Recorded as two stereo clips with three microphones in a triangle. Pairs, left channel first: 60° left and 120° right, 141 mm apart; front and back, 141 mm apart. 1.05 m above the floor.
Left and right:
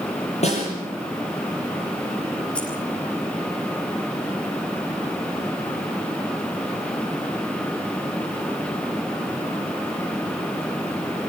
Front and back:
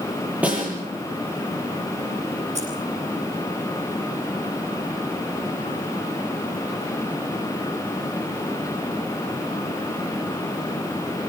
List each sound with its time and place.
0.4 s a snare drum: 100° left, 9 m
2.5 s keys jangling: 145° left, 8.5 m